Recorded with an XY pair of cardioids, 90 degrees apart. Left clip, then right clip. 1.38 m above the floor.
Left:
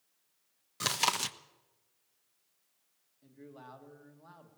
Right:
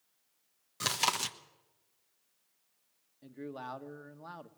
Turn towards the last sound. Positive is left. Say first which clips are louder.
# right 9 dB
turn(degrees=-65)